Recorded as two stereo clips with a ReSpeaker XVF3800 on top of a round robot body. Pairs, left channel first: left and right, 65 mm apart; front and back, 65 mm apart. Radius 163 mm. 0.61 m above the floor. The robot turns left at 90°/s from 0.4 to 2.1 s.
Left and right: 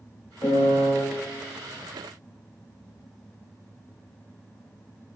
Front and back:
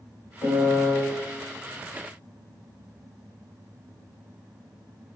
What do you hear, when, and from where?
0.4 s a piano: 50° left, 1.3 m; by 0.9 s 5° left, 1.3 m